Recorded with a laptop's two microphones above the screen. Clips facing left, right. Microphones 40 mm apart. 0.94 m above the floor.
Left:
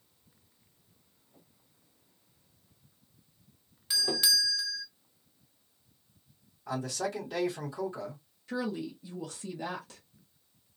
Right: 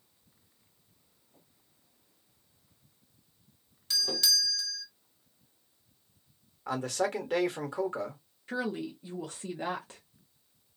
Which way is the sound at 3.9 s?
15° left (ahead or behind).